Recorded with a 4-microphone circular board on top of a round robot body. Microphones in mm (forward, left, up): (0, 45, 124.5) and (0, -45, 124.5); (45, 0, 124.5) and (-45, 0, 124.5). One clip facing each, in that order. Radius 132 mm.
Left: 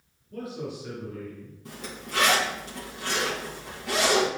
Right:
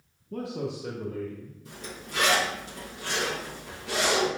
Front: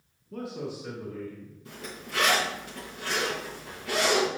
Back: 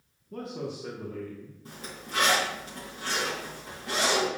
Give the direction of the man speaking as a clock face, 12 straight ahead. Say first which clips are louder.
Right 2 dB, even; 3 o'clock.